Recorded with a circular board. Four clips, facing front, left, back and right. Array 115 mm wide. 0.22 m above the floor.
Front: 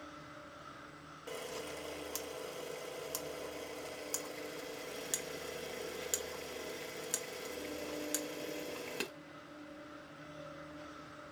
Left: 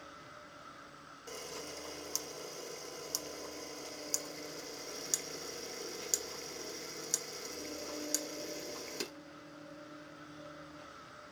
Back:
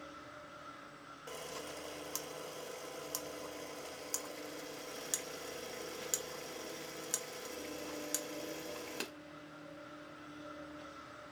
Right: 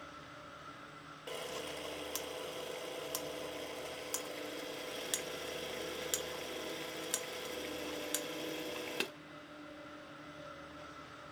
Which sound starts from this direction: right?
A camera shutter, at 1.3 s.